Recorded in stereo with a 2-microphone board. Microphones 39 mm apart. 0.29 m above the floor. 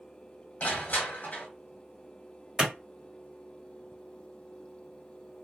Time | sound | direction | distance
0.6 | crushing | 50° left (ahead or behind) | 0.8 m
2.6 | a clap | 20° right (ahead or behind) | 1.1 m